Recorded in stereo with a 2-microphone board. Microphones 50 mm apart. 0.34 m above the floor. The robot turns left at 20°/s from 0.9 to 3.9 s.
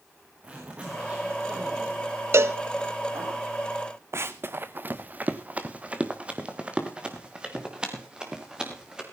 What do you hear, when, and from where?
0.4 s a zipper: 25° right, 6 m; by 3.3 s 75° right, 6 m
2.3 s a cowbell: 60° right (ahead or behind), 0.8 m; by 2.6 s 65° right (ahead or behind), 0.8 m
4.1 s running footsteps: 55° right (ahead or behind), 1.0 m; by 9.0 s 15° right (ahead or behind), 5 m